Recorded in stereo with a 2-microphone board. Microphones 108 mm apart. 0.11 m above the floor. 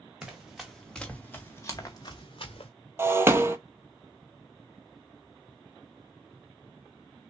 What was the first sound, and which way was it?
Running footsteps, 5° right (ahead or behind).